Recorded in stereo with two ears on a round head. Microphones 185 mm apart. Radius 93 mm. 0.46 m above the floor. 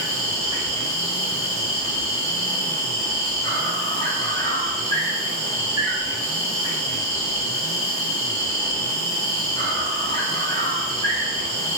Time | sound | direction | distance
0.0 | an insect | 20° left (ahead or behind) | 2 m